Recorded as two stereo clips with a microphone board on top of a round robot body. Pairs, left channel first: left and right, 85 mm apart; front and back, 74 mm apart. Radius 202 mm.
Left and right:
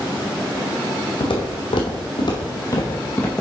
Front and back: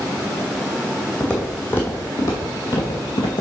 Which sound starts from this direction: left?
Footsteps, at 1.2 s.